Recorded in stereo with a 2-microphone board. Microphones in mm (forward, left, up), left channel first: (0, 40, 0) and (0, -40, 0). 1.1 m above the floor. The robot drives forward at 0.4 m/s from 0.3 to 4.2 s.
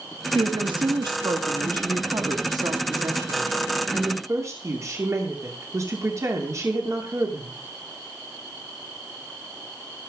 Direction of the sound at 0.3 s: 80° right.